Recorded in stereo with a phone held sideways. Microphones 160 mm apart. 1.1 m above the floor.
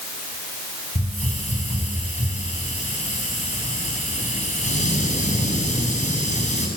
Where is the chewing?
I don't hear chewing.